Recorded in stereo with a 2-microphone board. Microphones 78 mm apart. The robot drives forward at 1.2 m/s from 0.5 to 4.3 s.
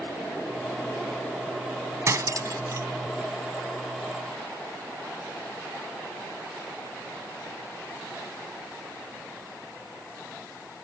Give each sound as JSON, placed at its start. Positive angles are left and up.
{"t": 2.1, "sound": "cutlery clinking", "side_deg": -40}